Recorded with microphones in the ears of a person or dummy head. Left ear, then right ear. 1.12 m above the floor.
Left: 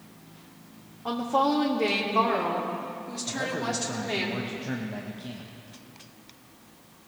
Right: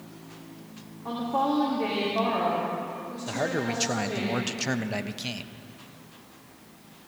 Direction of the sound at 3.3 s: 75° right (ahead or behind).